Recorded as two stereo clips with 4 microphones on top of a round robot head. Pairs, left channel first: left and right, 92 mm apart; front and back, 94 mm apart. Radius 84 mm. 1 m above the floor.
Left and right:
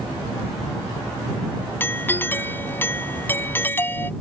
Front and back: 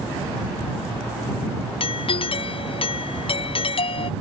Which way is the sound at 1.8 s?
25° left.